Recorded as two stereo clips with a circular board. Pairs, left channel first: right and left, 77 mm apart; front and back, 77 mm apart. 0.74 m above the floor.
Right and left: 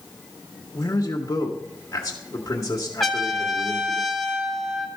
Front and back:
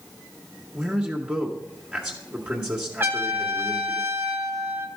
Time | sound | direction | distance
0.7 | a man speaking | 110° right | 1.4 m
3.0 | a trumpet | straight behind | 1.2 m